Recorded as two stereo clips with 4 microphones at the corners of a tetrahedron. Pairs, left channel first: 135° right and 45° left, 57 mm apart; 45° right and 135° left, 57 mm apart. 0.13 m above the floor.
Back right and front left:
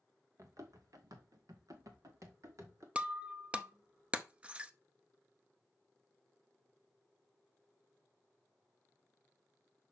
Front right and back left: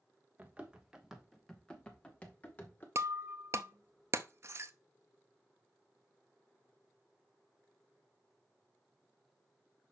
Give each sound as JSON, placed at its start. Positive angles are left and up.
{"t": 0.4, "sound": "running footsteps", "azimuth_deg": 70, "distance_m": 1.7}
{"t": 3.0, "sound": "breaking glass", "azimuth_deg": 110, "distance_m": 0.6}